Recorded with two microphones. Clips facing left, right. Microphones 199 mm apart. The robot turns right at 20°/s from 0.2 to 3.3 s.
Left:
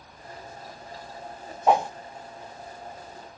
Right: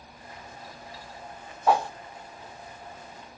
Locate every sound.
1.7 s a whoosh: 20° left (ahead or behind), 0.8 m; by 1.9 s 15° left (ahead or behind), 0.8 m